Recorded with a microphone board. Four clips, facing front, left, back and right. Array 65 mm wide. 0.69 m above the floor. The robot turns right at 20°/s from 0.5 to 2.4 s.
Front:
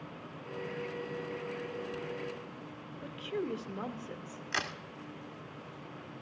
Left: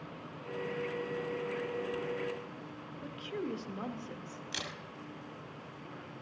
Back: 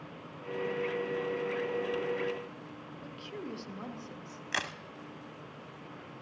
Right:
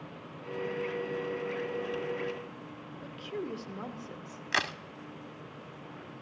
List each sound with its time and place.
3.0 s a woman speaking: 10° left, 1.0 m
4.5 s a crack: 100° right, 0.9 m